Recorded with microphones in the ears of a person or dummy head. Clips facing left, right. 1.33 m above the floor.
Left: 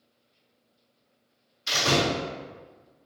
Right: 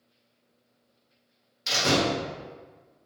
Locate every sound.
1.7 s a door slam: 70° right (ahead or behind), 1.2 m